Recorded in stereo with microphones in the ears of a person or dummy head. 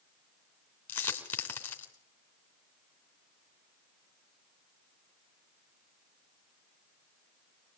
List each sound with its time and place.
0.9 s a dropped coin: 15° left (ahead or behind), 3 m